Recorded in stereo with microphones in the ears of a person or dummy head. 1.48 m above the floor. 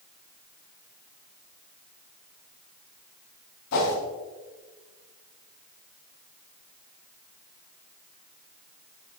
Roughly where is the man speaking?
No man speaking in this recording.